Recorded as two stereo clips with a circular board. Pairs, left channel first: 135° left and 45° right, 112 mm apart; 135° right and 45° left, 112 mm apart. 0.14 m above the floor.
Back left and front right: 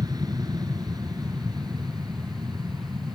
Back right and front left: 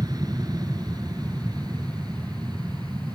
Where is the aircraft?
Straight ahead.